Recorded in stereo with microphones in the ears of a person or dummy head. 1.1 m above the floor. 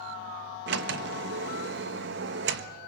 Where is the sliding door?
65° right (ahead or behind), 1.1 m.